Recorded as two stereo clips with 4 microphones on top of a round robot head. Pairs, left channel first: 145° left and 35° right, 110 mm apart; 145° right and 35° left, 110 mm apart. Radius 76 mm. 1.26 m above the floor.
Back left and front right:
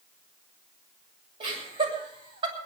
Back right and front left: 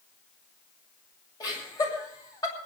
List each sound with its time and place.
1.4 s laughter: 85° right, 8 m